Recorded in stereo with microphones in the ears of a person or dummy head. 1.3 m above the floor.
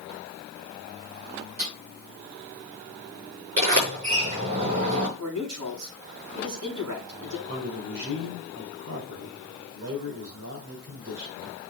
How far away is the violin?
No violin in this recording.